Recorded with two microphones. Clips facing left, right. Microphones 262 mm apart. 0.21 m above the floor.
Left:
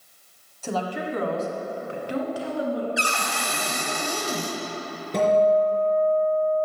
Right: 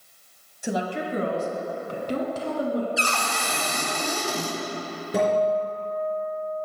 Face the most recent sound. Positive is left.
turn(degrees=-5)  # may be behind; listen again after turning